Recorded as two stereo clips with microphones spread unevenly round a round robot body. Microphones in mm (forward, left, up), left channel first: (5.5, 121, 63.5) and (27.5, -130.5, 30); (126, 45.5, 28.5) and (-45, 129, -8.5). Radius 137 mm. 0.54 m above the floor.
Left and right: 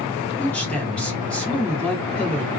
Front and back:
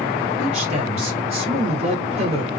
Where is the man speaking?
175° right, 1.7 m.